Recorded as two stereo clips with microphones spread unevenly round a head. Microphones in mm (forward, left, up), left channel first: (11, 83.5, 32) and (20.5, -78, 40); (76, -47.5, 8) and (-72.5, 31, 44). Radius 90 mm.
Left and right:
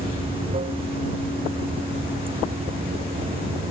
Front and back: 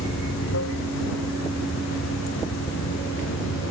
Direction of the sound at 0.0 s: 30° right.